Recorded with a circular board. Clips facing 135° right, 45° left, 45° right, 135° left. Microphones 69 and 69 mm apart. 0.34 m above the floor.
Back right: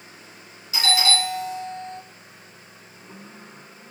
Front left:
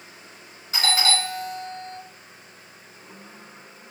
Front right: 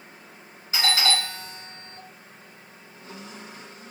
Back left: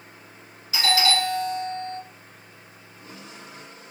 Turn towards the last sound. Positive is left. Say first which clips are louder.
# back right 1 dB, back left 3 dB
turn(degrees=10)